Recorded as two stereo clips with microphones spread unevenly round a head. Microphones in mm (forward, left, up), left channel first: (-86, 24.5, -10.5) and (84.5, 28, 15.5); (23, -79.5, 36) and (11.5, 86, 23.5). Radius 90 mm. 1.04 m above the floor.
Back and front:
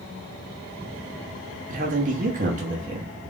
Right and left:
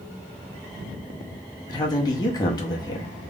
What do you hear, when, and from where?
1.7 s a man speaking: 30° right, 0.9 m